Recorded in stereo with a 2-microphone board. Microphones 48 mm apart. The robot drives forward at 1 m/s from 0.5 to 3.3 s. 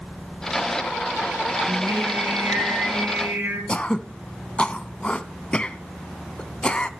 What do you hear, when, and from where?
1.7 s singing: 60° right (ahead or behind), 6.5 m; by 3.6 s 45° right (ahead or behind), 7.5 m
3.7 s throat clearing: 25° left (ahead or behind), 0.5 m